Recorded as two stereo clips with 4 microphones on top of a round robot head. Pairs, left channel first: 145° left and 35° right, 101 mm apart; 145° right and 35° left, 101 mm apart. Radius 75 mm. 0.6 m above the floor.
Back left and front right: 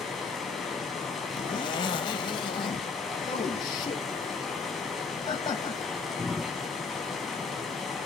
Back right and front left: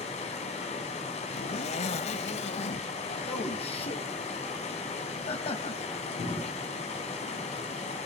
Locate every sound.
0.0 s running water: 125° right, 4.5 m
1.3 s a zipper: 170° right, 0.7 m
3.3 s a man speaking: 170° right, 3.5 m